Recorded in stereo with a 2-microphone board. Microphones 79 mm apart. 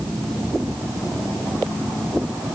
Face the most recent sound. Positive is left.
No sound to turn to.